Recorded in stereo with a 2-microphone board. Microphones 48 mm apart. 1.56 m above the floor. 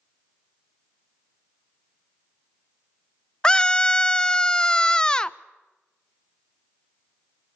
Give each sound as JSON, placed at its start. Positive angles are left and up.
{"t": 3.4, "sound": "a scream", "side_deg": 15, "distance_m": 0.5}